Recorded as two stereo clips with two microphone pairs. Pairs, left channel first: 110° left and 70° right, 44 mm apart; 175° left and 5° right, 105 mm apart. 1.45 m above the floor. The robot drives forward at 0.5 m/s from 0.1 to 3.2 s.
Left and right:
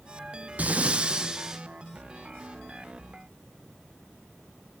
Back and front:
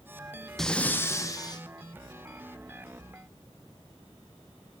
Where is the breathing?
100° right, 0.6 m; by 1.6 s 145° right, 0.9 m.